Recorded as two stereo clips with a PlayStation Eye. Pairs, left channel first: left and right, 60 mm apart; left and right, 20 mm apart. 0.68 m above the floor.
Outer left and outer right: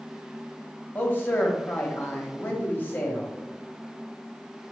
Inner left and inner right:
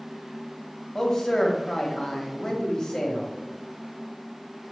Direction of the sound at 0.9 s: 35° left (ahead or behind).